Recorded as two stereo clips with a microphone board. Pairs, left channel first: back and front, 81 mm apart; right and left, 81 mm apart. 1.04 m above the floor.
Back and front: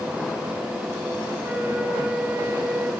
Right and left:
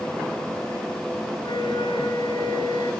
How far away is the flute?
About 7.5 m.